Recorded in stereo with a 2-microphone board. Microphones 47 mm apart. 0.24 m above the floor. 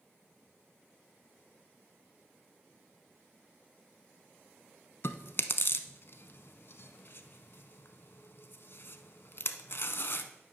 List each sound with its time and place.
5.0 s chewing: 55° left (ahead or behind), 0.5 m